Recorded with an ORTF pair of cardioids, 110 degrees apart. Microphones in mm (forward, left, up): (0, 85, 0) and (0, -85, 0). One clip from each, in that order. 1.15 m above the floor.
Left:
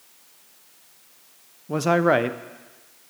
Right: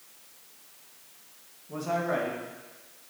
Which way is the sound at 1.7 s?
70° left.